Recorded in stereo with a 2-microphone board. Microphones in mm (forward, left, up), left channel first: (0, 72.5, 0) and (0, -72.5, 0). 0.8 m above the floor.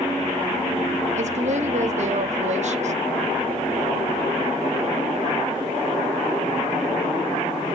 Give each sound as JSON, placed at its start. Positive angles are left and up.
{"t": 1.2, "sound": "a woman speaking", "side_deg": -55, "distance_m": 1.4}